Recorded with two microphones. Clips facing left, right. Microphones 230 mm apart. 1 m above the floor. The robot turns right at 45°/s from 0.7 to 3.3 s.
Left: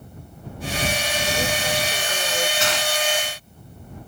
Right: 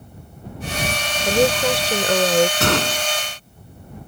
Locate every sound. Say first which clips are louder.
1.2 s a woman speaking: right 11 dB; 115° right; by 2.5 s 55° right
2.6 s a gunshot: right 5 dB; 55° right (ahead or behind); by 3.1 s 80° right